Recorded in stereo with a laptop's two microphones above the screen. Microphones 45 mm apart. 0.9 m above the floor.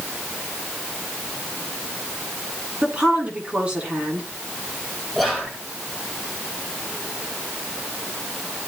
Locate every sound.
2.8 s a woman speaking: 25° right (ahead or behind), 10 m
5.2 s whispering: centre (ahead or behind), 9.5 m